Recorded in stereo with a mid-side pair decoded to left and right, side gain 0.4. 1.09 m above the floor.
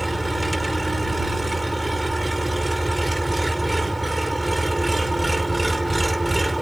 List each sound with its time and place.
0.0 s an engine running: 10° right